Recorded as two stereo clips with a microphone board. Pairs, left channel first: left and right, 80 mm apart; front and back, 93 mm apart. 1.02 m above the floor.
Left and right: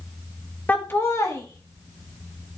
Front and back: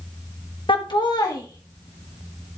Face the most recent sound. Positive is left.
turn(degrees=65)